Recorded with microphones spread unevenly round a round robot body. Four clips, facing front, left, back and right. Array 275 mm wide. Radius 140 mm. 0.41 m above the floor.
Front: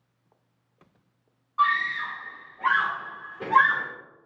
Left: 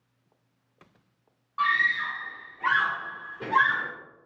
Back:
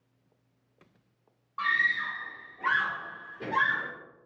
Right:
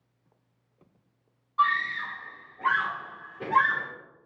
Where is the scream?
150° right, 1.5 m; by 3.9 s 5° right, 1.2 m.